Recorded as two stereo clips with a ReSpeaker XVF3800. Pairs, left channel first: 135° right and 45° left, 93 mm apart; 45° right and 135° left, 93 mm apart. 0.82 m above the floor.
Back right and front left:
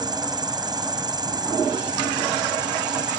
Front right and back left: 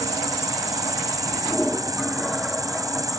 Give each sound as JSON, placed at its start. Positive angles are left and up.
{"t": 0.0, "sound": "an insect", "azimuth_deg": 85}